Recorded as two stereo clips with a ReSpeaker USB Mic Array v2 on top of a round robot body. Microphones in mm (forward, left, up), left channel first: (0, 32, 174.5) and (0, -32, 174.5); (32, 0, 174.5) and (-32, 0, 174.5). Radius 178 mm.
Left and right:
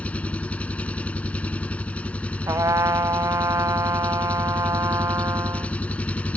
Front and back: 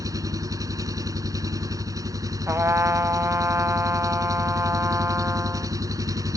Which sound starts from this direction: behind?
An engine running, at 0.0 s.